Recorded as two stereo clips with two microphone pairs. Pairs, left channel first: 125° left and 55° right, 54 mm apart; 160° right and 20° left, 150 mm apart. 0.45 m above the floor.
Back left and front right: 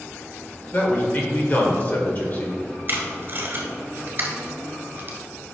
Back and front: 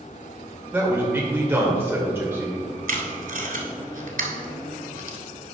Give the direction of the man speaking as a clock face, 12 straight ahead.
9 o'clock.